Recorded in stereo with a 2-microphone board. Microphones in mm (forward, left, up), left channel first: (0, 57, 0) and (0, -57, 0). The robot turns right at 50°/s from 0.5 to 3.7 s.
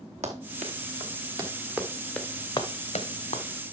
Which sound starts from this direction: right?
Running footsteps, at 0.2 s.